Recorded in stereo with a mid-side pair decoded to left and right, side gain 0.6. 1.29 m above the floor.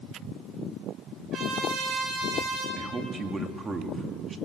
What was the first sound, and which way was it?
A trumpet, 40° right.